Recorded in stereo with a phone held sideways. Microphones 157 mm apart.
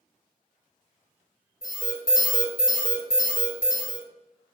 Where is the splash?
No splash in this recording.